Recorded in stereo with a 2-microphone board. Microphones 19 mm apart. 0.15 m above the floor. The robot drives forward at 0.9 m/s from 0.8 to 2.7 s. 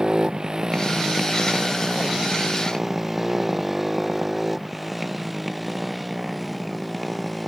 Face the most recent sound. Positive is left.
turn(degrees=5)  # may be behind; listen again after turning